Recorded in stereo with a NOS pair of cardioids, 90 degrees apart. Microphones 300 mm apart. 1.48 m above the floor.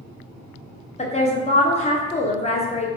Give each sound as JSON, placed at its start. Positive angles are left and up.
{"t": 1.0, "sound": "a woman speaking", "azimuth_deg": 20, "distance_m": 0.6}